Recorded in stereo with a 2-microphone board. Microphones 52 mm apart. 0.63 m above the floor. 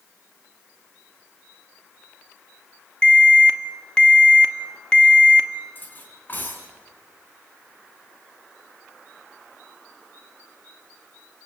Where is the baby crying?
I don't hear a baby crying.